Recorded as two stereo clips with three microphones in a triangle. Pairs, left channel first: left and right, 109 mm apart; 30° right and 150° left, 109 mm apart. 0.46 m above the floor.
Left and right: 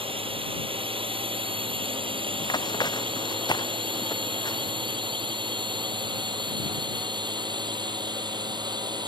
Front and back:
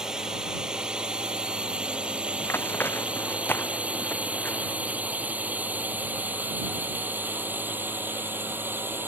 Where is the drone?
125° right; by 9.1 s 140° right.